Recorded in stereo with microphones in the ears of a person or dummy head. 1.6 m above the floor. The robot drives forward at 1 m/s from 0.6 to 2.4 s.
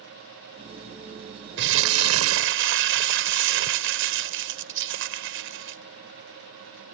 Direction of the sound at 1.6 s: 60° right (ahead or behind).